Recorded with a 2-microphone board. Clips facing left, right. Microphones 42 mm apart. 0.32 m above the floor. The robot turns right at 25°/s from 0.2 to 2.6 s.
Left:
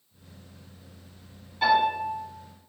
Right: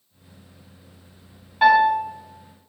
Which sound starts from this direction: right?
A piano, at 1.6 s.